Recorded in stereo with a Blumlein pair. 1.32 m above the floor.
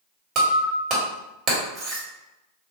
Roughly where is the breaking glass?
Ahead right.